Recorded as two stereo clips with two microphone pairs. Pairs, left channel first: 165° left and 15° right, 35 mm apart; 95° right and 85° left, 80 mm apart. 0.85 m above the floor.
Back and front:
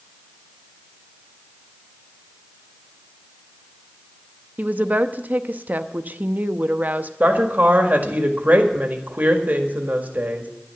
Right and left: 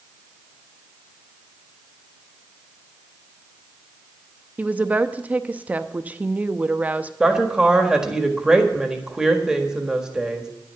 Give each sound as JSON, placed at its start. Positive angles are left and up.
{"t": 4.6, "sound": "a woman speaking", "azimuth_deg": 20, "distance_m": 0.7}
{"t": 7.2, "sound": "a woman speaking", "azimuth_deg": 5, "distance_m": 1.7}